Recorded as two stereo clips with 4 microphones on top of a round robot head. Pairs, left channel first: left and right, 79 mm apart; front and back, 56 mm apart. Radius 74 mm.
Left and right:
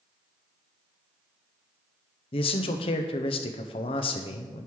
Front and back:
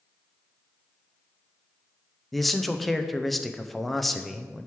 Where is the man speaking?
90° left, 0.6 m.